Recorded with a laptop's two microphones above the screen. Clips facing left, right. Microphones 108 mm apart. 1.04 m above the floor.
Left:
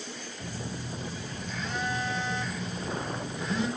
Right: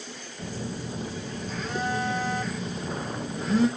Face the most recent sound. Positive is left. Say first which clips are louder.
# right 5 dB
turn(degrees=-45)  # may be behind; listen again after turning